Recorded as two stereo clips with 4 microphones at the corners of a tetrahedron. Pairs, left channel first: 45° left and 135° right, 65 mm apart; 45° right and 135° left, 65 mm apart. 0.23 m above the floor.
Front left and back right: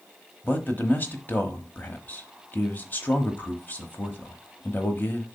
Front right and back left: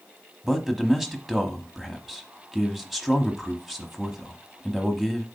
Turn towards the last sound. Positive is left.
turn(degrees=50)